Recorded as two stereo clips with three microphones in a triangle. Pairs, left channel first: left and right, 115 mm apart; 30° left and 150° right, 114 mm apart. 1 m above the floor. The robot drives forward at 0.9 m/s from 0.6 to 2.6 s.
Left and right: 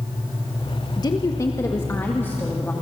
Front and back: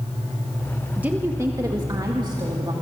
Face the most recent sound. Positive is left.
turn(degrees=165)